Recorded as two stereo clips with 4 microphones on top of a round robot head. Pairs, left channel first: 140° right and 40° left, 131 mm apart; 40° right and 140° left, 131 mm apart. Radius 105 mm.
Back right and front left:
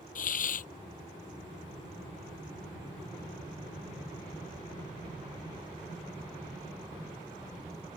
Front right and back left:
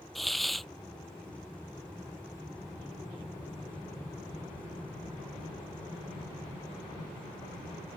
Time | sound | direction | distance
0.1 | a hiss | 125° right | ?